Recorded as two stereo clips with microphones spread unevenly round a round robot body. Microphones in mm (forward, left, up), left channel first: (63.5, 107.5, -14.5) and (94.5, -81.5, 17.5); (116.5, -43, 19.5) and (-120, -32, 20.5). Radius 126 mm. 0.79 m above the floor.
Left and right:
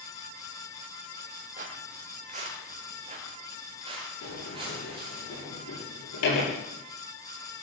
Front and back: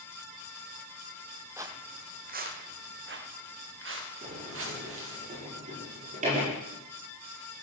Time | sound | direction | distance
1.6 | footsteps | 105° right | 1.2 m
4.2 | a sliding door | 115° left | 9 m